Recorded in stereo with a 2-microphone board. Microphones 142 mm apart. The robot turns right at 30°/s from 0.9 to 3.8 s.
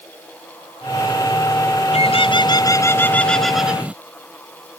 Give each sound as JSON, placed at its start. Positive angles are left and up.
{"t": 1.9, "sound": "a bird", "azimuth_deg": 135}